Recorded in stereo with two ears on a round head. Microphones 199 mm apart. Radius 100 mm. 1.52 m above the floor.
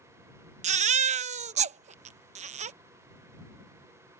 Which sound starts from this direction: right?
A baby crying, at 0.6 s.